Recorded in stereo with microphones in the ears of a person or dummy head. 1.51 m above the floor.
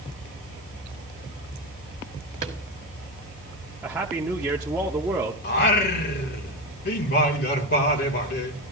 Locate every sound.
2.4 s a drawer: 35° right (ahead or behind), 1.7 m
3.8 s a man speaking: 10° right (ahead or behind), 0.9 m
5.4 s singing: 60° left (ahead or behind), 1.6 m